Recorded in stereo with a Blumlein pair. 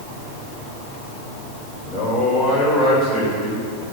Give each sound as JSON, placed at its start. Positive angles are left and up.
{"t": 1.8, "sound": "a man speaking", "azimuth_deg": 5, "distance_m": 6.0}